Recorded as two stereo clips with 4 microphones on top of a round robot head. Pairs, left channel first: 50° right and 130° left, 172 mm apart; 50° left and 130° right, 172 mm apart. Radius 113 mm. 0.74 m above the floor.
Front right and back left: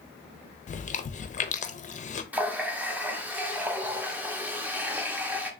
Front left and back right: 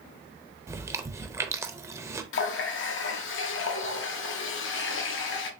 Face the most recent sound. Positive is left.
turn(degrees=50)